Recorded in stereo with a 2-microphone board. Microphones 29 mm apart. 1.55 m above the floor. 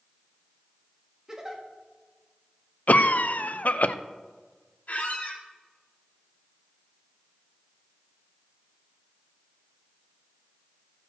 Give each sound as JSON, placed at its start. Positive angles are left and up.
{"t": 1.3, "sound": "a giggle", "side_deg": -20, "distance_m": 1.7}
{"t": 2.9, "sound": "a cough", "side_deg": 55, "distance_m": 0.7}
{"t": 4.9, "sound": "a squeak", "side_deg": 65, "distance_m": 3.0}